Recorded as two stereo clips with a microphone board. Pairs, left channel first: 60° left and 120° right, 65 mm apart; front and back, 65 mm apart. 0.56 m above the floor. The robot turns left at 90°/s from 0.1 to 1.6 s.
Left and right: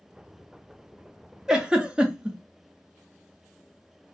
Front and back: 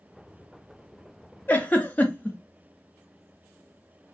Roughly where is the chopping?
I don't hear chopping.